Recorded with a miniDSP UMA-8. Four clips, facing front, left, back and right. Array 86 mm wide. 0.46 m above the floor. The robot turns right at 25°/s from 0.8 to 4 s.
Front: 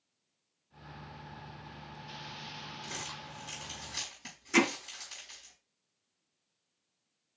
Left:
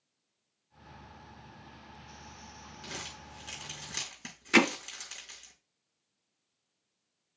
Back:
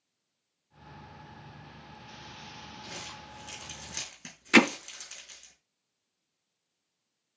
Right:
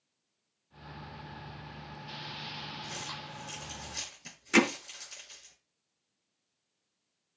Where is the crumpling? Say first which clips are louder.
Right 3 dB, front 1 dB; 75° left, 5 m; by 5.5 s 105° left, 5 m.